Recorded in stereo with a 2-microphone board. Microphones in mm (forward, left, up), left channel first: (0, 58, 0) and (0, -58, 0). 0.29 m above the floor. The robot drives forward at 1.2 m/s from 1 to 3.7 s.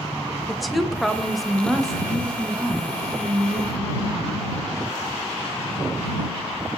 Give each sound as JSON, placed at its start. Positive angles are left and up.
{"t": 0.5, "sound": "a woman speaking", "side_deg": 0, "distance_m": 1.0}